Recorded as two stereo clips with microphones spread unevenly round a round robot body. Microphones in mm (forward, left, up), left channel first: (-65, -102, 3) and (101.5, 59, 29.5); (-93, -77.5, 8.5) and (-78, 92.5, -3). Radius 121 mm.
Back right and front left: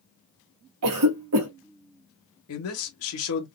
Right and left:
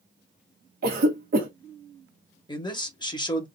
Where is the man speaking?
160° right, 1.4 m.